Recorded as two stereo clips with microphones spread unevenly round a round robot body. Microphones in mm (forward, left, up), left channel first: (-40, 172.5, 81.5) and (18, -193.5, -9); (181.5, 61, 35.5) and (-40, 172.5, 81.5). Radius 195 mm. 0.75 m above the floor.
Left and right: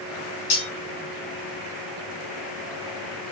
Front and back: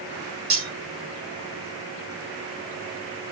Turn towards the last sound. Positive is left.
turn(degrees=115)